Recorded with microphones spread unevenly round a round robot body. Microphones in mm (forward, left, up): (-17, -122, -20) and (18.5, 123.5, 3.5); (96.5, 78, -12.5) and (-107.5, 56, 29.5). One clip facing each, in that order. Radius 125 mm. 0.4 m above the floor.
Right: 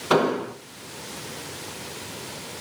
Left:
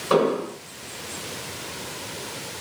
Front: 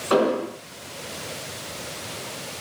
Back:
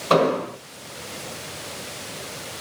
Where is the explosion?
120° right, 2.5 m.